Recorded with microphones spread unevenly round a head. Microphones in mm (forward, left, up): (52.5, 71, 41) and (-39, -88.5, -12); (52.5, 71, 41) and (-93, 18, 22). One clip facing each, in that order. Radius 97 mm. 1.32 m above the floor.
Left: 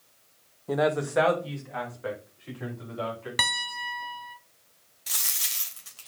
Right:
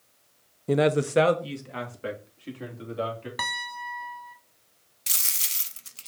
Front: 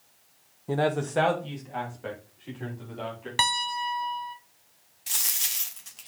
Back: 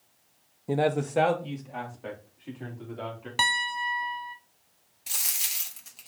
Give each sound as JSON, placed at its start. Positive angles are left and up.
{"t": 0.7, "sound": "a man speaking", "azimuth_deg": -95, "distance_m": 0.6}
{"t": 3.4, "sound": "a piano", "azimuth_deg": 120, "distance_m": 0.6}
{"t": 5.1, "sound": "a dropped coin", "azimuth_deg": -65, "distance_m": 0.6}